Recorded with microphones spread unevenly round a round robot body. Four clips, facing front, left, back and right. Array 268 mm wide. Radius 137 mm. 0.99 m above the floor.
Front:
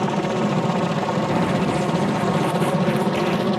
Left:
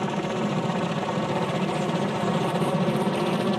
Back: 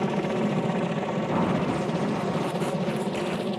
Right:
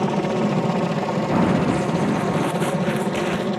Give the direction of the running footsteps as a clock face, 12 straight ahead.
3 o'clock.